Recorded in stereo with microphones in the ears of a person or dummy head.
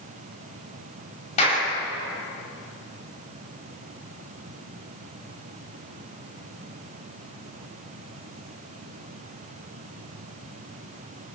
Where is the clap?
35° left (ahead or behind), 8 m.